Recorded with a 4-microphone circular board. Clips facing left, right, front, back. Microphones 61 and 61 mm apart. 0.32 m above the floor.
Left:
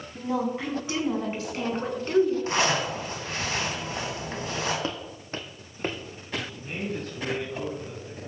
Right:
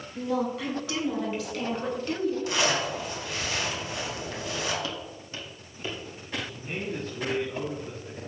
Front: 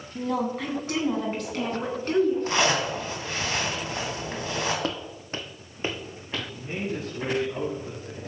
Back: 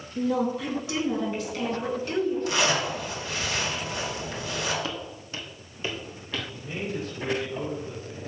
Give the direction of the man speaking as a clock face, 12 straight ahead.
1 o'clock.